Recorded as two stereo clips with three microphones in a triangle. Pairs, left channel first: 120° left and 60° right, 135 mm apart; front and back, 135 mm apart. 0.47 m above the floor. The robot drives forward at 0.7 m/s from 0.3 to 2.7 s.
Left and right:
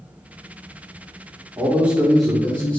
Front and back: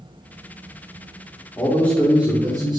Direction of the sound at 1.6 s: 5° right.